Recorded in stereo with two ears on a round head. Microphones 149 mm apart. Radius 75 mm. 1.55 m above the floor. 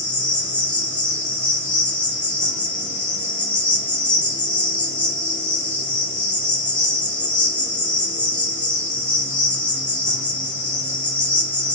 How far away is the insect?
About 1.3 m.